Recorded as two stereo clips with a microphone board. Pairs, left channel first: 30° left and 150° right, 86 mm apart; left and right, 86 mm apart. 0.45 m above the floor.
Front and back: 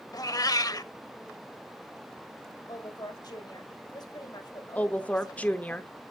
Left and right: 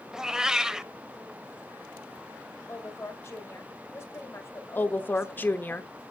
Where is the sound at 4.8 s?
75° left, 0.8 m.